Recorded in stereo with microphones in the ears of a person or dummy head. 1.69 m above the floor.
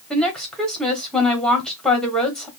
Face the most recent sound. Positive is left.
turn(degrees=5)  # may be behind; listen again after turning